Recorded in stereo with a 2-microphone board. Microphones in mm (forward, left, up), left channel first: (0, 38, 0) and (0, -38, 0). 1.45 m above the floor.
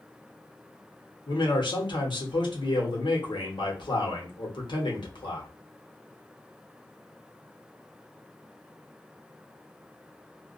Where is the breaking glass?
I don't hear breaking glass.